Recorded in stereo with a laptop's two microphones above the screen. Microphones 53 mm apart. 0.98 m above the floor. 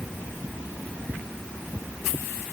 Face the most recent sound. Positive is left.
No sound to turn to.